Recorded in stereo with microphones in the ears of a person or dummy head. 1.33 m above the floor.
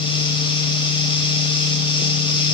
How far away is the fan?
About 0.9 m.